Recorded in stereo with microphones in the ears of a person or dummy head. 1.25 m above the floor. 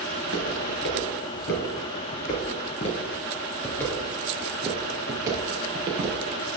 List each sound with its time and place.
0.1 s footsteps: 60° left (ahead or behind), 2.5 m; by 6.2 s 25° right (ahead or behind), 1.9 m